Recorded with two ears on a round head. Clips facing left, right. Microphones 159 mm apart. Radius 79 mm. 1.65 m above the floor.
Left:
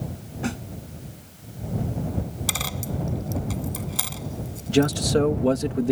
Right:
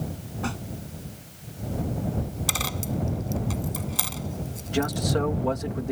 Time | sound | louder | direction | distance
0.4 | a snare drum | left 3 dB | 20° left (ahead or behind) | ?
2.5 | a dropped coin | right 1 dB | centre (ahead or behind) | ?
4.7 | a man speaking | left 6 dB | 40° left (ahead or behind) | ?